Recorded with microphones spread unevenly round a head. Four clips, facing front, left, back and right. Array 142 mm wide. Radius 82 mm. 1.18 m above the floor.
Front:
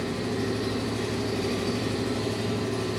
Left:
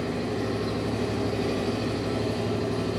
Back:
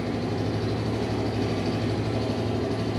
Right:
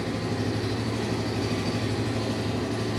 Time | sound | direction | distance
0.0 | an engine running | 130° left | 3.5 m